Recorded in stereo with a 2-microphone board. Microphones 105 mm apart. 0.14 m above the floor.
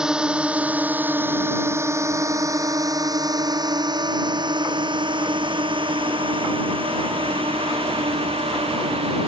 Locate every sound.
0.0 s a drone: 5° right (ahead or behind); by 9.3 s 60° right (ahead or behind)